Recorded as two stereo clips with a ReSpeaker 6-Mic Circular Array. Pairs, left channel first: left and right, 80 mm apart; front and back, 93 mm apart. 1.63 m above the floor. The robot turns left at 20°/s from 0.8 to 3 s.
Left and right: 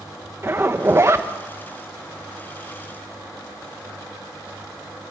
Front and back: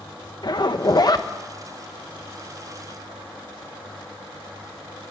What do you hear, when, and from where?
0.4 s a zipper: 35° right, 1.3 m; by 1.3 s 45° right, 1.3 m